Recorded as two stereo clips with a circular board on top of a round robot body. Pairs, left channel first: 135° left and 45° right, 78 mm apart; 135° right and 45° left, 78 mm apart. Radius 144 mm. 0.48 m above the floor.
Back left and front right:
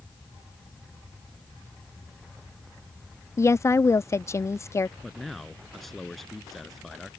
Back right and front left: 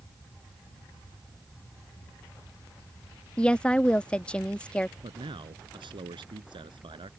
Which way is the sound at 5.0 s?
45° left.